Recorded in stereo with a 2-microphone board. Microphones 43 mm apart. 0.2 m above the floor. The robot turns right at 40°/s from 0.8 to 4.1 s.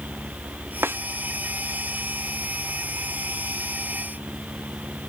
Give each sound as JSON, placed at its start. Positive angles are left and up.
{"t": 0.8, "sound": "a snare drum", "side_deg": -70}